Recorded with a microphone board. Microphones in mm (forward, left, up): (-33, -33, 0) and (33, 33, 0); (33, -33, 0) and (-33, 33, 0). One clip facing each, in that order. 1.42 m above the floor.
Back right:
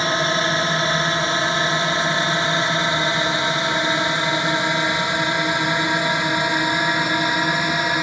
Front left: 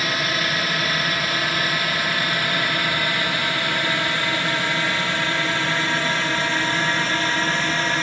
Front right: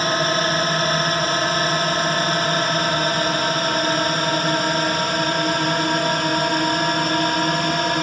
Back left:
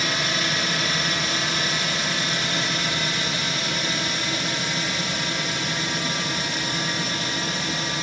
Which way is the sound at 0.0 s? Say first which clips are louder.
Back right 4 dB, front right 7 dB; 80° right.